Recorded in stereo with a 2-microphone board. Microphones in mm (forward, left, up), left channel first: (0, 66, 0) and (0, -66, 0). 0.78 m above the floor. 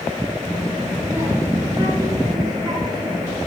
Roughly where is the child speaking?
Right.